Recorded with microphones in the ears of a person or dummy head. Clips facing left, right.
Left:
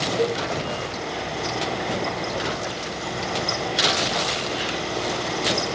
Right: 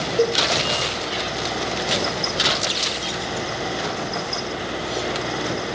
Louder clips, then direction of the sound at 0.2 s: Right 4 dB; 60° right (ahead or behind).